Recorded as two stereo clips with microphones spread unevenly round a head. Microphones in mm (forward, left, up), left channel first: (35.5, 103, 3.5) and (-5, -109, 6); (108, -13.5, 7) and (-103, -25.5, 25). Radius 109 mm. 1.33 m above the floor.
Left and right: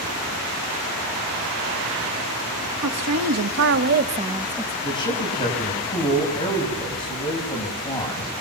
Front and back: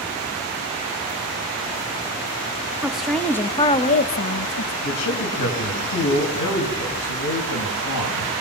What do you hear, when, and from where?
2.8 s a woman speaking: 90° right, 2.5 m; by 4.7 s 10° right, 1.5 m
4.8 s a man speaking: 10° left, 8.5 m